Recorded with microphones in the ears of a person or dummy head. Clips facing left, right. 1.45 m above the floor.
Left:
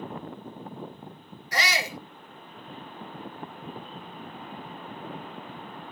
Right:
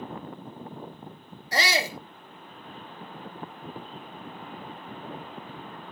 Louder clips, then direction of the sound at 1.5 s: Right 3 dB; 30° right (ahead or behind).